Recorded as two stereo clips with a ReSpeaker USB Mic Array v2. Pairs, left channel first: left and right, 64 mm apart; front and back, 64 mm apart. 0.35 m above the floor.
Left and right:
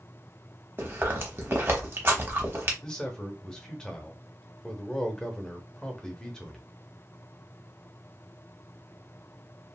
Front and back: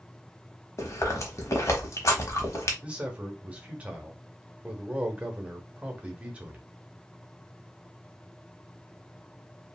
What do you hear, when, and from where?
0.8 s chewing: 40° right, 0.9 m
2.8 s a man speaking: 145° left, 0.8 m